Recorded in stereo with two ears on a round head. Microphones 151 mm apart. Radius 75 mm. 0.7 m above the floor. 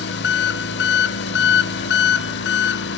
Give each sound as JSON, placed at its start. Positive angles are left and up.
{"t": 0.0, "sound": "an engine running", "side_deg": 70, "distance_m": 0.8}